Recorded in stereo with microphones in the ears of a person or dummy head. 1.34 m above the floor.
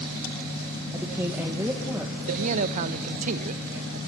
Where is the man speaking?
45° right (ahead or behind), 0.8 m.